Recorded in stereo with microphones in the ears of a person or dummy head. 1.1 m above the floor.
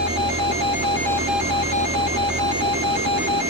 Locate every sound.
0.0 s an engine running: 35° right (ahead or behind), 0.8 m